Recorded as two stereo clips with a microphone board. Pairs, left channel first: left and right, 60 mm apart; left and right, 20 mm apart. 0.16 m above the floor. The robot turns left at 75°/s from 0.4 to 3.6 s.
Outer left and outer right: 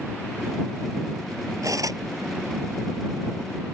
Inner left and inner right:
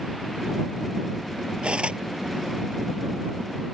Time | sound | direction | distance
1.6 | cutlery clinking | 65° right (ahead or behind) | ?